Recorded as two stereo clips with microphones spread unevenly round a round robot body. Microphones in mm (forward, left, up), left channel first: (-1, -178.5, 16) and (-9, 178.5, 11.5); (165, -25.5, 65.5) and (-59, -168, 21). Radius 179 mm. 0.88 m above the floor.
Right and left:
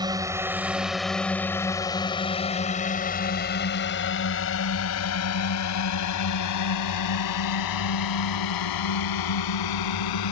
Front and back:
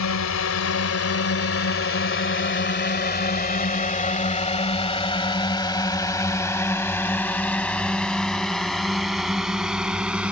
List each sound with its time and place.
0.0 s a drone: 10° left; by 10.3 s 60° right